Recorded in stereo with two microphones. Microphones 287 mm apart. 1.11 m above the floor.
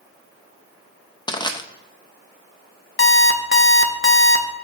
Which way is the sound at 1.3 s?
15° left (ahead or behind).